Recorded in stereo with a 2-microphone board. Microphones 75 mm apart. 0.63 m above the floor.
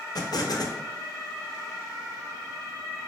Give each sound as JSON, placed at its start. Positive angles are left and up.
{"t": 0.1, "sound": "an explosion", "side_deg": 65, "distance_m": 0.5}